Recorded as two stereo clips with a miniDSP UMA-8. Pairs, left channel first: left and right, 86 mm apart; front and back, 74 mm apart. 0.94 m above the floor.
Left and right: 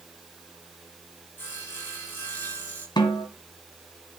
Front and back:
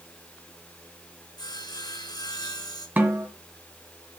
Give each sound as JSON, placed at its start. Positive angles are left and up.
{"t": 1.4, "sound": "sawing", "azimuth_deg": 20, "distance_m": 5.0}
{"t": 3.0, "sound": "a snare drum", "azimuth_deg": 115, "distance_m": 2.0}